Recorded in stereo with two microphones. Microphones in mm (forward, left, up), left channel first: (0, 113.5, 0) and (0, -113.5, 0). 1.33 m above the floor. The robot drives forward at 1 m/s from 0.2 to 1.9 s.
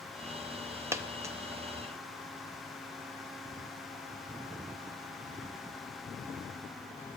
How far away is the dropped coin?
About 0.7 m.